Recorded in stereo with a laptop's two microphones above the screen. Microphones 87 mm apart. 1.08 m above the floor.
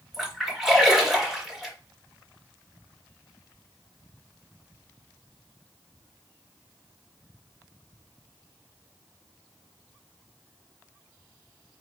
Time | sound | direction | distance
0.1 | a splash | 5° right (ahead or behind) | 1.5 m